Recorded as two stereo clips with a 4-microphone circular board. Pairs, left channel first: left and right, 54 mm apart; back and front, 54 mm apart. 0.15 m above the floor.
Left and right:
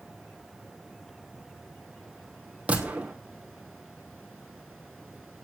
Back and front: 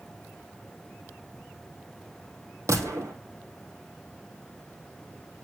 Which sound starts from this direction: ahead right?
A gunshot, at 2.7 s.